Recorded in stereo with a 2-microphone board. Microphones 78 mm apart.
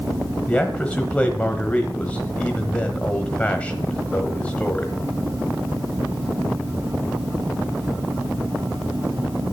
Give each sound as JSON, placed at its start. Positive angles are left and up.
{"t": 0.5, "sound": "a man speaking", "side_deg": 20, "distance_m": 1.1}